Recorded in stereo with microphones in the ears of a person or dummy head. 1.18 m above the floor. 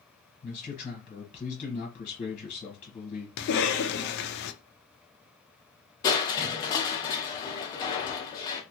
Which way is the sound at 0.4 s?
40° left (ahead or behind).